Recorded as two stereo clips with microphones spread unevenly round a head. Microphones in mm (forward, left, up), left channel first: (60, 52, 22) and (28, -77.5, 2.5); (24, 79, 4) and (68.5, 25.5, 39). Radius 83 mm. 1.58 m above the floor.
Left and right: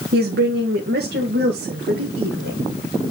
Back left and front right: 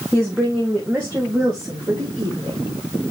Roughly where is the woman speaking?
Behind right.